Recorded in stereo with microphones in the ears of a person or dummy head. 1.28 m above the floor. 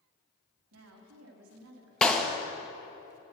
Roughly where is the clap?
Centre.